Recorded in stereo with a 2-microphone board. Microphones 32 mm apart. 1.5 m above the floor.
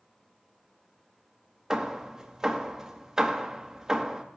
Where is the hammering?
20° right (ahead or behind), 0.9 m.